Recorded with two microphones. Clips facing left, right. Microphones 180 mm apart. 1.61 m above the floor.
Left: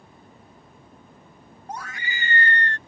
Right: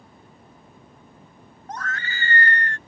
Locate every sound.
1.7 s a scream: 10° left (ahead or behind); by 2.8 s 35° left (ahead or behind)